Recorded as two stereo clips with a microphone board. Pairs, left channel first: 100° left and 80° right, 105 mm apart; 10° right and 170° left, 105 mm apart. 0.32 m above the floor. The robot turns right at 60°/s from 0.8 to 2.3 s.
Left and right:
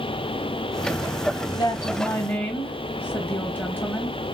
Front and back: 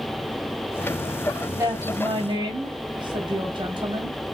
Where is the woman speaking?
120° left, 1.7 m; by 4.2 s 165° left, 1.7 m.